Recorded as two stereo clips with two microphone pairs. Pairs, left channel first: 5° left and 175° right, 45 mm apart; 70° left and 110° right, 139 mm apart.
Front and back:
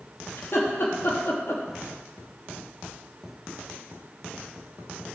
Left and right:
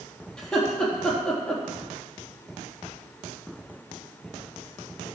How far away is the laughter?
About 4 m.